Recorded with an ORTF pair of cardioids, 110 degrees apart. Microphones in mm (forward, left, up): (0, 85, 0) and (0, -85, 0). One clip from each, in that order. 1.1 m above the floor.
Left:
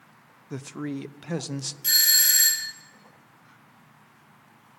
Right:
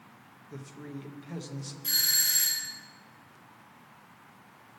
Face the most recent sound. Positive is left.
turn(degrees=70)